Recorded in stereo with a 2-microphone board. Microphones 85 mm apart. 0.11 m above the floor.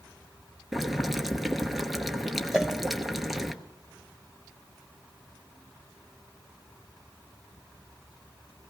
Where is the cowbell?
5° right (ahead or behind), 1.2 m.